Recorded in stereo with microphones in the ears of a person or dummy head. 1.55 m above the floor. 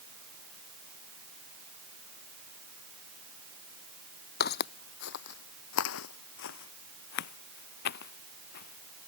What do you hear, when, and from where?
4.4 s footsteps: 50° left (ahead or behind); by 9.1 s 55° left (ahead or behind)